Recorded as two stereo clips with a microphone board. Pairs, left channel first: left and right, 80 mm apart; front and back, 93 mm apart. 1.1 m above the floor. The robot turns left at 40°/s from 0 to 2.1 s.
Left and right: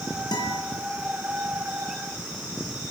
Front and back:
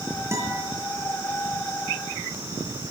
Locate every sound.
0.3 s a guitar: 120° left, 7.5 m; by 0.6 s 105° left, 7.5 m